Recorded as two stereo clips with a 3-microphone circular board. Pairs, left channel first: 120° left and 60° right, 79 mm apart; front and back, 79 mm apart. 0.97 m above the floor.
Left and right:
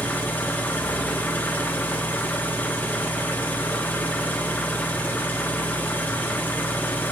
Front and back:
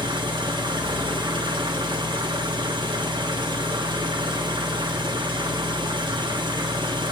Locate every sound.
0.0 s an engine running: 175° right, 1.1 m